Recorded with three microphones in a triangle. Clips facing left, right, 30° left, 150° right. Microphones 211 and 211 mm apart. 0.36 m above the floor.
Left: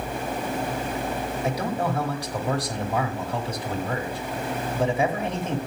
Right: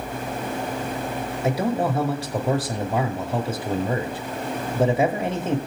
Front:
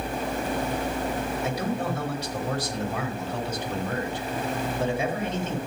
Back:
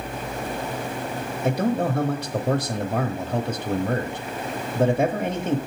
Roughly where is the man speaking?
Behind right.